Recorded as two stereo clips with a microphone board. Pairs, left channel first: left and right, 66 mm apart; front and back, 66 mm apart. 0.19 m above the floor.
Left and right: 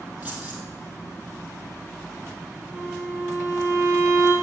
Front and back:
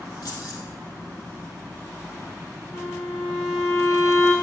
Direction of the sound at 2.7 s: 40° right.